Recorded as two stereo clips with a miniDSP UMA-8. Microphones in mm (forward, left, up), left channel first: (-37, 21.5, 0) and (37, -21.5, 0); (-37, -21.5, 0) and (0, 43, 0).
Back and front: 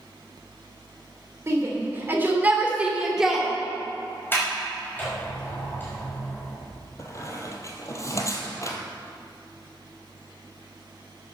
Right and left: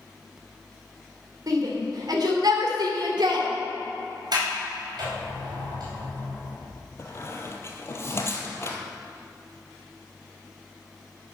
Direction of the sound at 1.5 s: 30° left.